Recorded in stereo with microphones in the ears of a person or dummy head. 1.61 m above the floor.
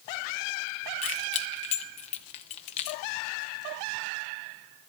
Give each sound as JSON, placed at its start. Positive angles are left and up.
{"t": 1.0, "sound": "keys jangling", "side_deg": 30, "distance_m": 0.5}